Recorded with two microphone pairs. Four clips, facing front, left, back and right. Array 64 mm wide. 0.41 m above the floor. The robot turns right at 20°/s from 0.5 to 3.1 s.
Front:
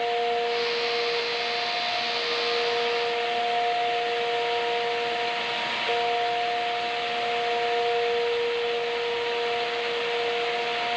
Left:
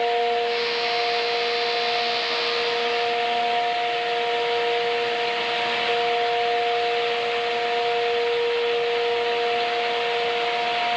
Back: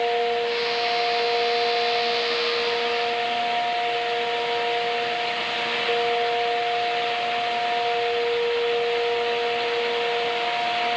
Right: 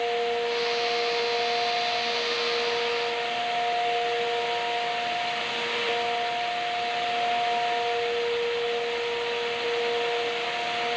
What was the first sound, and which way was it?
Only background noise.